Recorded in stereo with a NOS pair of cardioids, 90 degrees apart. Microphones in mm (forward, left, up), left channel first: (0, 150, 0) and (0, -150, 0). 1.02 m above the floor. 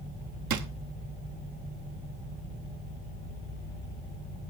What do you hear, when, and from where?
0.5 s a drawer: 65° right, 1.2 m